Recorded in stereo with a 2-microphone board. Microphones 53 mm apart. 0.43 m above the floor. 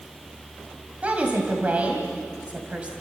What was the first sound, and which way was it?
A woman speaking, 25° right (ahead or behind).